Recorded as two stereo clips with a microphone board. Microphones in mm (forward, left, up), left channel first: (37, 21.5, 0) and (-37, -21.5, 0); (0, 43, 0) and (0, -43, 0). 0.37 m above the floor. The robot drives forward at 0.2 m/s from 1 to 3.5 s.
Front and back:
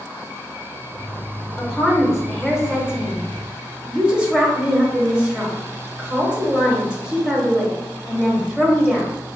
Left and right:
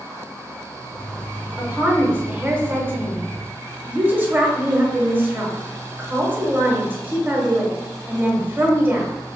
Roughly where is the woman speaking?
Ahead right.